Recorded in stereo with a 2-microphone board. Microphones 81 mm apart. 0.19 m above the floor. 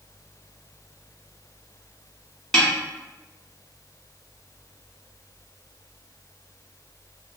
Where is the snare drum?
5° left (ahead or behind), 1.4 m.